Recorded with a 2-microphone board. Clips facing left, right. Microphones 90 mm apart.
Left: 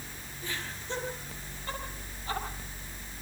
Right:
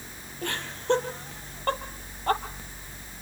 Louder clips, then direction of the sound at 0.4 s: Right 9 dB; 70° right (ahead or behind).